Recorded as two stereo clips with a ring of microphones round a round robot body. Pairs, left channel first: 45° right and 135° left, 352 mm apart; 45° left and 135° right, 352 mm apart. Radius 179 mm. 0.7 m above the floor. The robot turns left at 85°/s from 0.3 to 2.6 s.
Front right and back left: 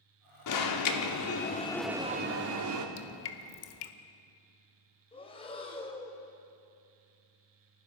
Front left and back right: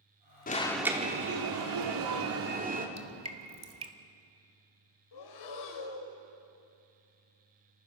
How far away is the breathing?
About 3 m.